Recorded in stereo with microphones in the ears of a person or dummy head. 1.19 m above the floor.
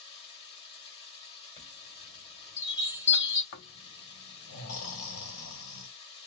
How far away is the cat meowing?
No cat meowing in this recording.